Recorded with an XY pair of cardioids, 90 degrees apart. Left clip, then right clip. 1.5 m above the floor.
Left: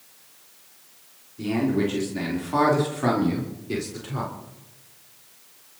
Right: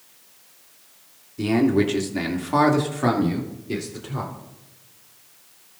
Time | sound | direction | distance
1.4 | a man speaking | 65° right | 3.5 m